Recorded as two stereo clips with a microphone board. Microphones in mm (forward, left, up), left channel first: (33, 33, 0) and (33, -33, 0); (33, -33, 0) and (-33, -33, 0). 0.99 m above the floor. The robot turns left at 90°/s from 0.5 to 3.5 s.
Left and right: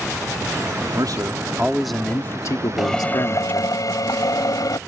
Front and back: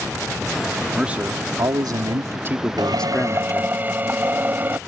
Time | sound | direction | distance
0.9 | a man speaking | 95° right | ?
2.8 | a drill | 175° right | ?